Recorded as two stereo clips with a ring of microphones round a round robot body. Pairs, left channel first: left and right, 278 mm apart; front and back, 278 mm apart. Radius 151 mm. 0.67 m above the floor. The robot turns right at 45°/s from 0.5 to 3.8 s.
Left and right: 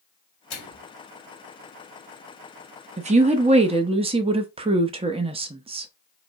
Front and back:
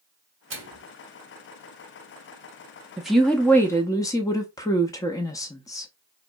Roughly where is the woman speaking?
Right.